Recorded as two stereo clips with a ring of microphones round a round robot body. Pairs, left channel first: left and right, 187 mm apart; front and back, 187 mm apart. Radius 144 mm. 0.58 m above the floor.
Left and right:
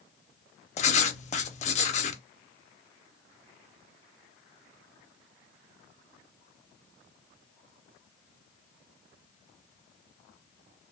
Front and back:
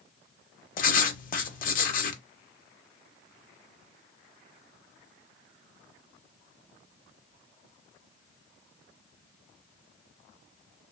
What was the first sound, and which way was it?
Writing, 40° left.